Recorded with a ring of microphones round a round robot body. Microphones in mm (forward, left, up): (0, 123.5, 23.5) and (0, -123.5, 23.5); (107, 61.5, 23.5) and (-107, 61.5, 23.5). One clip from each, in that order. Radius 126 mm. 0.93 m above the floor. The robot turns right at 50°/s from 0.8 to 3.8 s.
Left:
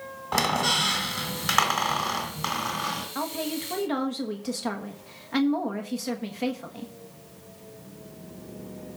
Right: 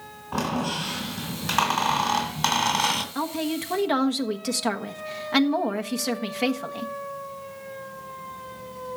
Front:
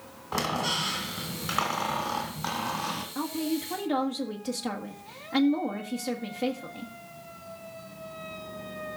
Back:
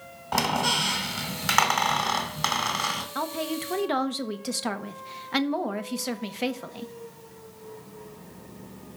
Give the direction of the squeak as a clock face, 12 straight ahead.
8 o'clock.